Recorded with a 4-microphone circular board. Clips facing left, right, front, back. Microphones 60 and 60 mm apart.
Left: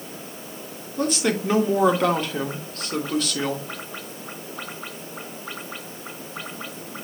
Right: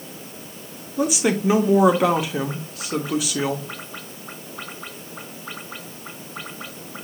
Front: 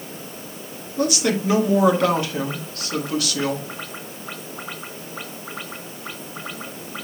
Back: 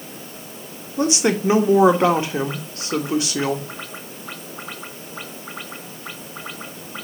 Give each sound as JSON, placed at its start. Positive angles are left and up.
{"t": 1.0, "sound": "a woman speaking", "azimuth_deg": -160, "distance_m": 1.0}